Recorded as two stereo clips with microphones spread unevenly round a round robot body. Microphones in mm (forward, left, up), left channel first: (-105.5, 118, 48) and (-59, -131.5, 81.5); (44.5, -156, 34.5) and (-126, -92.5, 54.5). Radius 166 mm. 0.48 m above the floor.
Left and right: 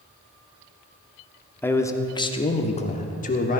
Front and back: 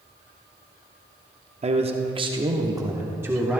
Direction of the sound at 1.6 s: 160° left.